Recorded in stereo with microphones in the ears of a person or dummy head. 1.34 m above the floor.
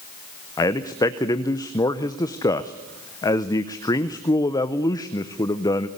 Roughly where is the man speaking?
Centre.